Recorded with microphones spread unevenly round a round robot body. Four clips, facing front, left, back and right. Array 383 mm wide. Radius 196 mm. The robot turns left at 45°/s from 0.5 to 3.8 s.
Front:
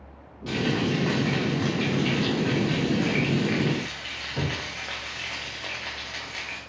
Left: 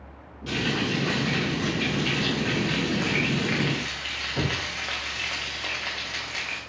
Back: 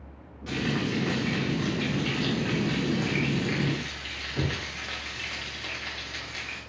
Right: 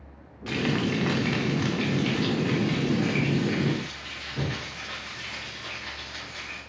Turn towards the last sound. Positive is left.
turn(degrees=115)